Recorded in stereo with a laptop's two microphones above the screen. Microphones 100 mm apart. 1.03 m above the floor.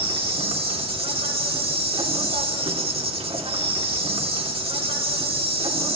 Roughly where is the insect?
Right.